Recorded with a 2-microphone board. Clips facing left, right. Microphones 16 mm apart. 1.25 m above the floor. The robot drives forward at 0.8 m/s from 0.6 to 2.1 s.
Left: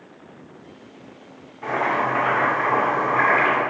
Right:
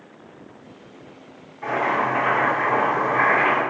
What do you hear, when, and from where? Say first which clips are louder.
1.6 s boiling: even; 10° right (ahead or behind), 1.4 m